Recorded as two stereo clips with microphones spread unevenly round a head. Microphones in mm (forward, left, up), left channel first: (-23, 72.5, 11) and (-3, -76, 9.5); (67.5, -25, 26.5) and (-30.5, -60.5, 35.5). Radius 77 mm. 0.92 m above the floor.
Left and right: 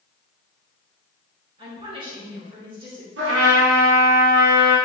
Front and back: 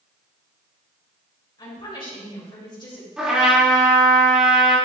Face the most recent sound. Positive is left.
turn(degrees=-75)